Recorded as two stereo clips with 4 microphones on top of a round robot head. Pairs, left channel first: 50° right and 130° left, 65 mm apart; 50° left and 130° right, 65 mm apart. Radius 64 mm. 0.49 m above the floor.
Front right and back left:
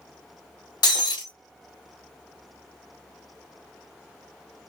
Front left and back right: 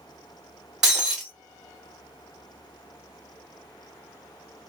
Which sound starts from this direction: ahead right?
Breaking glass, at 0.8 s.